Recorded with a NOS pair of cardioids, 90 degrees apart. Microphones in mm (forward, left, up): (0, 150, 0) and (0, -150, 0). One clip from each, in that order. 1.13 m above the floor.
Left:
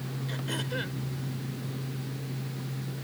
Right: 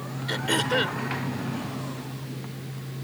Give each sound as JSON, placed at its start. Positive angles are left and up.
{"t": 0.3, "sound": "throat clearing", "azimuth_deg": -70}